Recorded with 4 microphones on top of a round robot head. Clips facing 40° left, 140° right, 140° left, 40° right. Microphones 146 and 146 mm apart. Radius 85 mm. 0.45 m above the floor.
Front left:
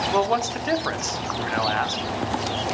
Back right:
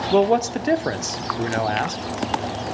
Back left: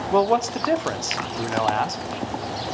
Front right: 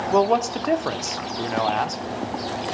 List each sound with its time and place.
0.1 s a man speaking: 130° right, 1.1 m